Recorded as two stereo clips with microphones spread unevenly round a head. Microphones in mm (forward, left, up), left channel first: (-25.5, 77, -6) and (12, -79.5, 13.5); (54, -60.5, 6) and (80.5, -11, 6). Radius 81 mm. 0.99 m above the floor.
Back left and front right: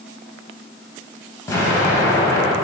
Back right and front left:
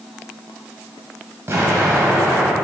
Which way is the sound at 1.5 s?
30° left.